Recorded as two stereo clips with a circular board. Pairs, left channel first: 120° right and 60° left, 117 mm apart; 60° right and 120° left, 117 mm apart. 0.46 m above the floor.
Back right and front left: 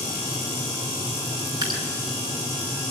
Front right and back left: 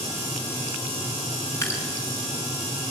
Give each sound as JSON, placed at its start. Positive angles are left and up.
{"t": 1.6, "sound": "dripping", "azimuth_deg": 10, "distance_m": 5.5}